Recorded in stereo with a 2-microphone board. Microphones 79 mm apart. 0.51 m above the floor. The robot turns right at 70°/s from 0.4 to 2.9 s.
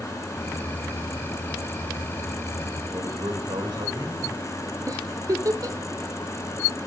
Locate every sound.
2.9 s a man speaking: 65° right (ahead or behind), 1.9 m
4.9 s a giggle: 45° right (ahead or behind), 0.8 m